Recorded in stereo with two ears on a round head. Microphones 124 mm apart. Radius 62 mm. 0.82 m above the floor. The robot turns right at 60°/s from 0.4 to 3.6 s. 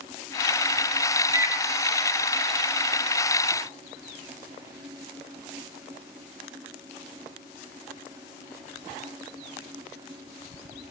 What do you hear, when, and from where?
1.3 s a microwave: 30° right (ahead or behind), 1.6 m; by 1.6 s 15° right (ahead or behind), 1.6 m